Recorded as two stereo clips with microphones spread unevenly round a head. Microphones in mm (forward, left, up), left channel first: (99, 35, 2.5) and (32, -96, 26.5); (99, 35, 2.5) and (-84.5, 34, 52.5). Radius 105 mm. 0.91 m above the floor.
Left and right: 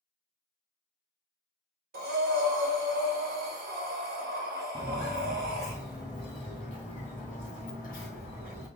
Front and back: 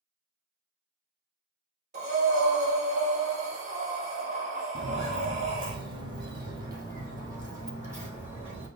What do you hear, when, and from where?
1.9 s breathing: 120° right, 1.1 m
4.8 s footsteps: 165° left, 1.3 m; by 8.7 s 110° left, 2.5 m